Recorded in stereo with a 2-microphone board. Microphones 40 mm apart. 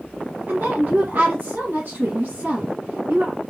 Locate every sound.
0.5 s a woman speaking: 55° right (ahead or behind), 1.6 m